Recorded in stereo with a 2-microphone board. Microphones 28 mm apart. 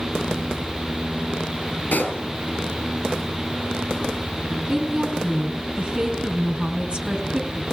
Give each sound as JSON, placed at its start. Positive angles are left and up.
{"t": 1.9, "sound": "a pop", "side_deg": 80, "distance_m": 4.5}
{"t": 4.7, "sound": "a woman speaking", "side_deg": -40, "distance_m": 4.5}